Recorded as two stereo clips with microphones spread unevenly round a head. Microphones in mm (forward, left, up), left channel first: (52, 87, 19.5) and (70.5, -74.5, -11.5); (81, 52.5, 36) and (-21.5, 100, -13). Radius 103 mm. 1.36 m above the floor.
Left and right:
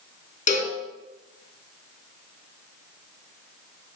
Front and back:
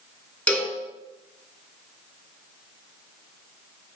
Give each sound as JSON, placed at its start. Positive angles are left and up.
{"t": 0.5, "sound": "a cowbell", "azimuth_deg": 55, "distance_m": 3.0}